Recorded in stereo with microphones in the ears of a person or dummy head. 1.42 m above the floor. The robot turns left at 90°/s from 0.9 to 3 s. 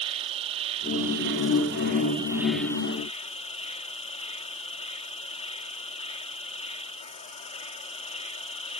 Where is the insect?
35° right; by 8.8 s 135° left.